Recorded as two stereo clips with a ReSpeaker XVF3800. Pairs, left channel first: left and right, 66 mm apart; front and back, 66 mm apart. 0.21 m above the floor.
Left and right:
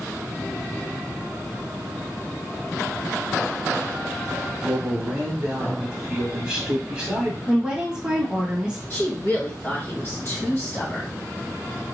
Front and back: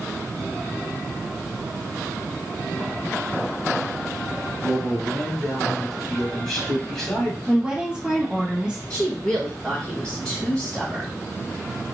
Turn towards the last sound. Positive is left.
turn(degrees=65)